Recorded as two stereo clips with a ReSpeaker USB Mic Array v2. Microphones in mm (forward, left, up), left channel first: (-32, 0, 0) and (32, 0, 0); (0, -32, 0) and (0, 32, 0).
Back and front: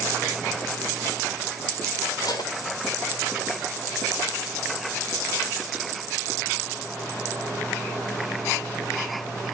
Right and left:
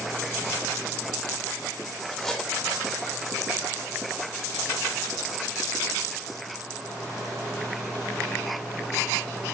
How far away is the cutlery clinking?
About 2.5 m.